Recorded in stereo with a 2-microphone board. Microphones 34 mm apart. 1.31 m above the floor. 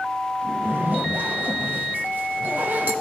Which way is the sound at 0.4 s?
60° right (ahead or behind).